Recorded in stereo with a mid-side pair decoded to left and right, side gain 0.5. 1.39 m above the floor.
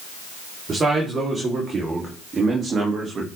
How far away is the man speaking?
About 4 m.